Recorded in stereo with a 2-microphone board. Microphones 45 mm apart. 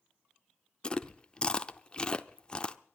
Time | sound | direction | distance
0.8 | chewing | 20° left (ahead or behind) | 0.6 m